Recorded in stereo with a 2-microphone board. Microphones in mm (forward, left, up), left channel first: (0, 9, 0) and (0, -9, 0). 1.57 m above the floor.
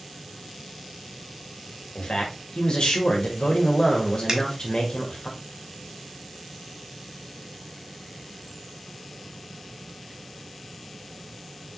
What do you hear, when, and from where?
1.9 s a man speaking: 70° left (ahead or behind), 1.6 m
4.3 s a finger snap: 40° right (ahead or behind), 1.4 m